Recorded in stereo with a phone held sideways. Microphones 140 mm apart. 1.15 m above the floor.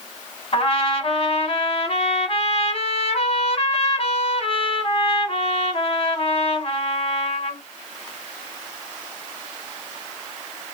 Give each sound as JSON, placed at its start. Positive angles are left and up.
{"t": 0.5, "sound": "a trumpet", "side_deg": 45, "distance_m": 1.4}